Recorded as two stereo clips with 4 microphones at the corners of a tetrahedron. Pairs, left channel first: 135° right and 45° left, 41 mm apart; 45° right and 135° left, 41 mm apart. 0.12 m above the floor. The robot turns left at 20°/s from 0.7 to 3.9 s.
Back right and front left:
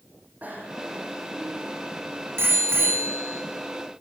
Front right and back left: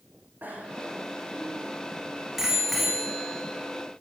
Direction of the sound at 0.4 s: 90° left.